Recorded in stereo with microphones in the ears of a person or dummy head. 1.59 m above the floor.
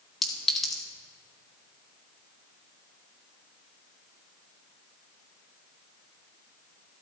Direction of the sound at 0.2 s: 5° left (ahead or behind).